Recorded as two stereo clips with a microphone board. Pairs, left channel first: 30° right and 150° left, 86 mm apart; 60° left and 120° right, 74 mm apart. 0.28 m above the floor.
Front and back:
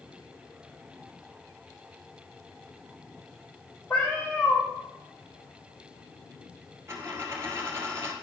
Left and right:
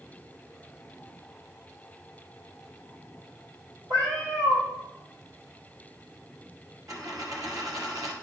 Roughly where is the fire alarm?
I don't hear a fire alarm.